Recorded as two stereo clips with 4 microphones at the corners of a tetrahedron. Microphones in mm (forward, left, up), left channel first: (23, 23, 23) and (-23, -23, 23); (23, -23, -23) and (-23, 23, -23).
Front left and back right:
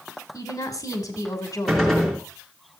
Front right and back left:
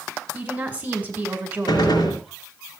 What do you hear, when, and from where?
0.3 s a woman speaking: 70° left, 2.5 m
1.7 s a gunshot: 40° right, 3.5 m